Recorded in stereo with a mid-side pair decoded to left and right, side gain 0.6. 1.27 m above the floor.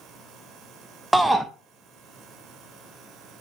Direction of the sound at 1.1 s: 15° right.